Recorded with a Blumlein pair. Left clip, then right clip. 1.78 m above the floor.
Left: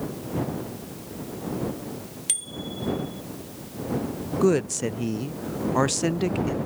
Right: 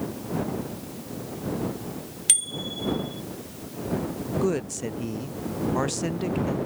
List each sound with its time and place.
2.3 s a bicycle bell: 15° right
4.4 s a woman speaking: 15° left